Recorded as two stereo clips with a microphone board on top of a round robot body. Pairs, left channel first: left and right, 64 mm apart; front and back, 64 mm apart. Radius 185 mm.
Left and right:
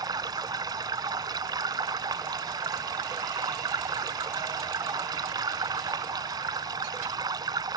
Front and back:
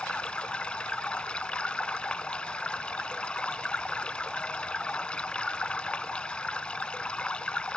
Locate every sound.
0.0 s running water: 75° right